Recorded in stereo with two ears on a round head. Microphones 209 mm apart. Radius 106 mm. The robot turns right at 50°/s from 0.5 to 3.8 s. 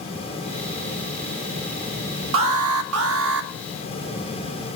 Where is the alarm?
110° right, 1.6 m; by 3.5 s 50° right, 1.6 m.